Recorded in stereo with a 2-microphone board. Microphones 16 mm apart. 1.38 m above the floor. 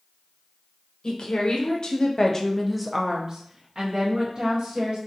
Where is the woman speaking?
65° left (ahead or behind), 1.0 m; by 5.0 s 70° right (ahead or behind), 1.4 m.